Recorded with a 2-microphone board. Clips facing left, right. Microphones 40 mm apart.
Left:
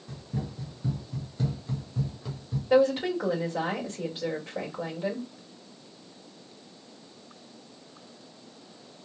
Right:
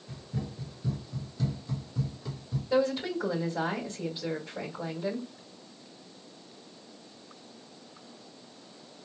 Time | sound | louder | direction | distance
0.1 | running footsteps | left 2 dB | 55° left (ahead or behind) | 2 m
2.7 | a woman speaking | left 5 dB | 60° left (ahead or behind) | 2.0 m